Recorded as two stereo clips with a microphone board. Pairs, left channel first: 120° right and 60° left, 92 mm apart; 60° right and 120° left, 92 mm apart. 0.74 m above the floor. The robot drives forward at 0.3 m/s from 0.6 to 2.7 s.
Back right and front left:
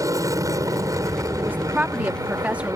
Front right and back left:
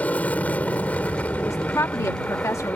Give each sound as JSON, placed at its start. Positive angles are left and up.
{"t": 0.0, "sound": "an aircraft", "azimuth_deg": 15}
{"t": 1.4, "sound": "a woman speaking", "azimuth_deg": -10}